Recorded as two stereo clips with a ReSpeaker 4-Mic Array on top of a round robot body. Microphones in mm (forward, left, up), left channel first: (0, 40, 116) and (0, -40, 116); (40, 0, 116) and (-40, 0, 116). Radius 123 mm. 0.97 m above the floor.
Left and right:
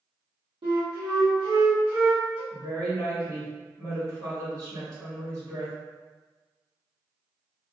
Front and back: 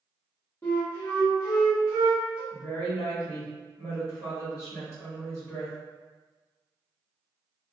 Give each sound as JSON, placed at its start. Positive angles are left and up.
{"t": 0.6, "sound": "a flute", "azimuth_deg": -65, "distance_m": 0.9}
{"t": 2.5, "sound": "a woman speaking", "azimuth_deg": -65, "distance_m": 1.5}